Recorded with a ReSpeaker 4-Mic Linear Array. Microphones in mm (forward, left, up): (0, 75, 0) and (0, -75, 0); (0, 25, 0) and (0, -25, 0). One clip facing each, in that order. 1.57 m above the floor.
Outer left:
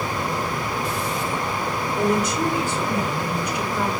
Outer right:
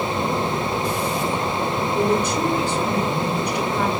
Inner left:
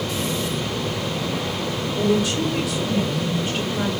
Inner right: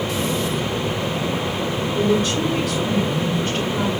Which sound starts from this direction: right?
A woman speaking, at 1.9 s.